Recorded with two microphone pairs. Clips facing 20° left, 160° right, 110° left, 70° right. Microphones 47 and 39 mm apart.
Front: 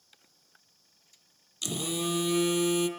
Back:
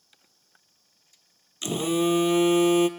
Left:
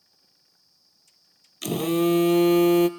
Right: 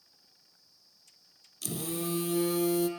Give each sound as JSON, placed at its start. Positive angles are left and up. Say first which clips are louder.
{"t": 1.6, "sound": "a phone buzzing", "louder": "back 8 dB, left 13 dB", "azimuth_deg": 140, "distance_m": 0.8}